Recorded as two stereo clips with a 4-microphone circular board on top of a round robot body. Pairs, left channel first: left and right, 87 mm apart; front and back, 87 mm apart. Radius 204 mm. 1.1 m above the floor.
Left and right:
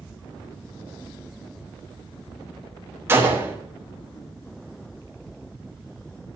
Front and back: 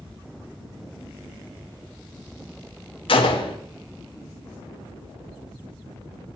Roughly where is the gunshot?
Ahead right.